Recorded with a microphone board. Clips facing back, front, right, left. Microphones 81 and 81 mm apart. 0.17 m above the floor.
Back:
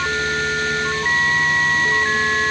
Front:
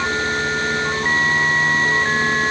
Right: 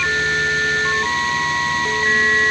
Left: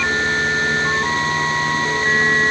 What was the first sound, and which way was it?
Only background noise.